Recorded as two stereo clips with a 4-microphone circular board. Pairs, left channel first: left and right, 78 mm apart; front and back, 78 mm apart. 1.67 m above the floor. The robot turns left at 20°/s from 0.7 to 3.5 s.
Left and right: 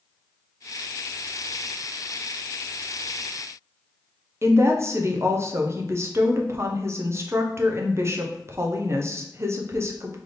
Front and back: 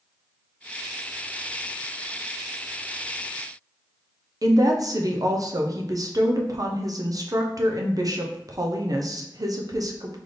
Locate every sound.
4.4 s a woman speaking: 140° right, 0.8 m